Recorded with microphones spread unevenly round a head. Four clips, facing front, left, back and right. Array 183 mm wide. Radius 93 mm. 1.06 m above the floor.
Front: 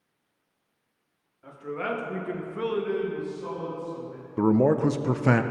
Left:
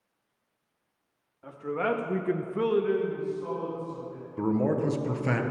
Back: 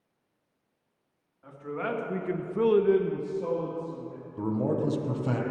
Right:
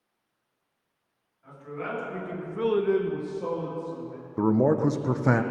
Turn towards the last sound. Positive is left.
turn(degrees=-35)